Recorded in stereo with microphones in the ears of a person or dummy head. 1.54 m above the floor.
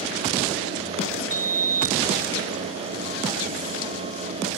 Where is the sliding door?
45° right (ahead or behind).